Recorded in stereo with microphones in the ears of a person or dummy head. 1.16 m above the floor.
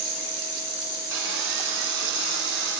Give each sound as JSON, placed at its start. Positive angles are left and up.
{"t": 1.1, "sound": "sawing", "side_deg": -60, "distance_m": 2.0}